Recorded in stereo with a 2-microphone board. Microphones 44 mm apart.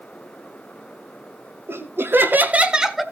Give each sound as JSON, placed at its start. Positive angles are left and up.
{"t": 1.7, "sound": "laughter", "side_deg": -65, "distance_m": 1.7}